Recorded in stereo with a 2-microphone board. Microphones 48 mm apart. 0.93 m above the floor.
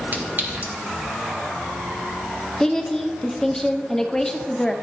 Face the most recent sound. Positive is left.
turn(degrees=10)  # may be behind; listen again after turning